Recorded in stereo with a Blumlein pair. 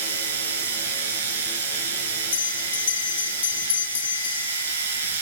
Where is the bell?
65° left, 0.9 m.